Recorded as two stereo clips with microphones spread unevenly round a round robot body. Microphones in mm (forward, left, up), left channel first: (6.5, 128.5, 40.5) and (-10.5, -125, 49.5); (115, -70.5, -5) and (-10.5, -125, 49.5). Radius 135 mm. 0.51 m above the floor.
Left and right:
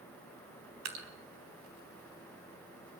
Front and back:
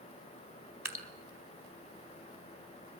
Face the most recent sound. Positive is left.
turn(degrees=-80)